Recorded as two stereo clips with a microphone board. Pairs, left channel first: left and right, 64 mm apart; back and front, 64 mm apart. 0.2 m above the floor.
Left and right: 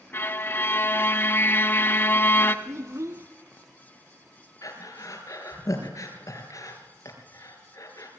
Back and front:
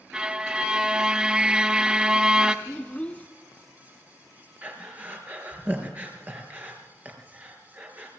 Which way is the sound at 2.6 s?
115° right.